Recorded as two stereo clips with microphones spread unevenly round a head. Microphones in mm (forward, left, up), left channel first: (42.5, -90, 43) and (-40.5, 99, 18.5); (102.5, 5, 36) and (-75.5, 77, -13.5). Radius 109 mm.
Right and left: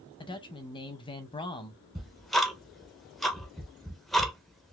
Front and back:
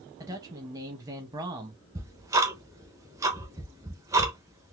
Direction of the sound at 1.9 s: 165° right.